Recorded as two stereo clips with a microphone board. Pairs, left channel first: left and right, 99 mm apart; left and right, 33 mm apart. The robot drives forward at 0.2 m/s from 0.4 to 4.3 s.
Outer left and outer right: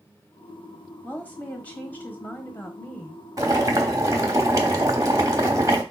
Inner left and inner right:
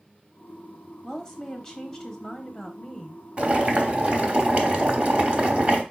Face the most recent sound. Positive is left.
turn(degrees=-30)  # may be behind; listen again after turning